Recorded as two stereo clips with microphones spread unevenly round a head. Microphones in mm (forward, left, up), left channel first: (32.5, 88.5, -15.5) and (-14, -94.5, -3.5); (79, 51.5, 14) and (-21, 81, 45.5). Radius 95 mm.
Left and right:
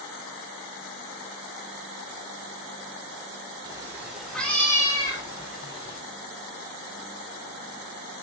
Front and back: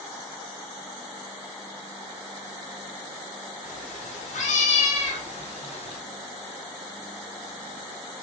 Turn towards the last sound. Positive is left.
turn(degrees=15)